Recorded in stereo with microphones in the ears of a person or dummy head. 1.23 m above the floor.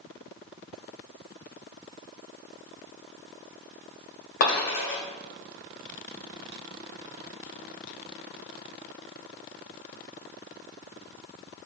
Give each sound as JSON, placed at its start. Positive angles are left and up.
{"t": 4.4, "sound": "a dropped coin", "side_deg": 60, "distance_m": 1.9}